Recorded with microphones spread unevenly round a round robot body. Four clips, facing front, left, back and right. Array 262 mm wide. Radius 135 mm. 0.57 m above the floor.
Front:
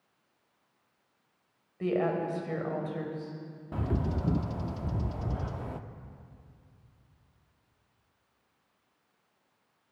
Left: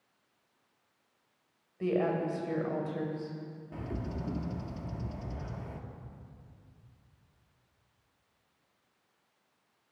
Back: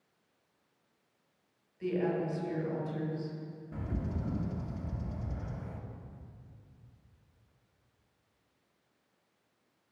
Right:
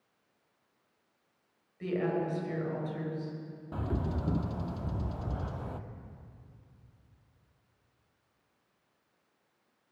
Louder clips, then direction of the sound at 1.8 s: Left 2 dB, front 3 dB; 30° left.